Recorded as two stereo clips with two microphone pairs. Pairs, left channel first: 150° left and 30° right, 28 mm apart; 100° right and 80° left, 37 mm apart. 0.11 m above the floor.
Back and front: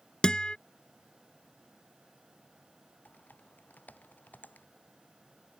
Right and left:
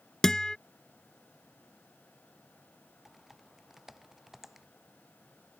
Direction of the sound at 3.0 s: 160° left.